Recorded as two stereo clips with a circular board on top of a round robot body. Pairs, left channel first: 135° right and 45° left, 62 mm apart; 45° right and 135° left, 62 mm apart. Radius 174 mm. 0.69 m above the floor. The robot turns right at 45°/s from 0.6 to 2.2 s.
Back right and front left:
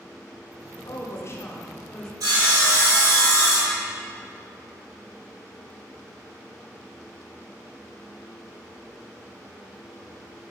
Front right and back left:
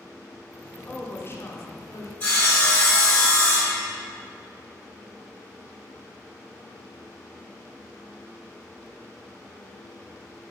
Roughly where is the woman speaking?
Right.